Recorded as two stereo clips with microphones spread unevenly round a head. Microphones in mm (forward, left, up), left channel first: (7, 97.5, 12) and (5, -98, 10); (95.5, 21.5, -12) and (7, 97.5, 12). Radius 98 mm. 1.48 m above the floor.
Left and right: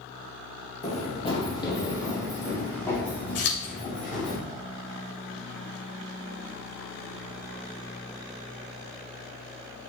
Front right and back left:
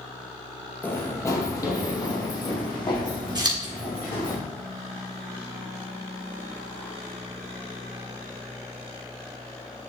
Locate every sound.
0.8 s running footsteps: 40° left, 2.5 m; by 4.3 s 5° left, 6 m
3.4 s scissors: 85° left, 2.5 m